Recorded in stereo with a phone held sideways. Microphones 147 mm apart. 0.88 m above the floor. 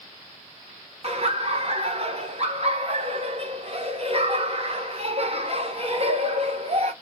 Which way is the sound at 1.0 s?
45° right (ahead or behind).